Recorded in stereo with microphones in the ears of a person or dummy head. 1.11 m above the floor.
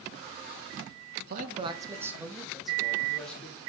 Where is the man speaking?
55° right (ahead or behind), 0.7 m; by 3.6 s 5° left (ahead or behind), 2.5 m.